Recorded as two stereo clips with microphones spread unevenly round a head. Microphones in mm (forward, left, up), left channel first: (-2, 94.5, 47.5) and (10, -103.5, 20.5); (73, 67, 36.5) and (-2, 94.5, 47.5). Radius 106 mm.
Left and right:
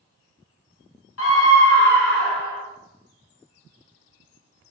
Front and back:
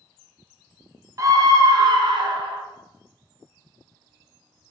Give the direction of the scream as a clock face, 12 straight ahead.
8 o'clock.